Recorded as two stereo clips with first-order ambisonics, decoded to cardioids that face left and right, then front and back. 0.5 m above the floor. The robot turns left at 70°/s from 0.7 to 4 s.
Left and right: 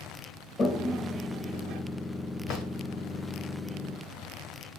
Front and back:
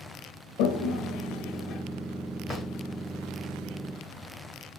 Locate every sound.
0.6 s a toilet flushing: 20° left, 0.5 m; by 1.8 s 60° right, 0.5 m
2.5 s a drawer: 75° left, 1.2 m; by 2.7 s 60° left, 1.2 m